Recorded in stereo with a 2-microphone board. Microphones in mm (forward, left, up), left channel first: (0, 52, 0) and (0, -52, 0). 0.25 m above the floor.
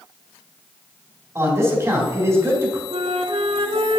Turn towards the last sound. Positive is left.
turn(degrees=-70)  # may be behind; listen again after turning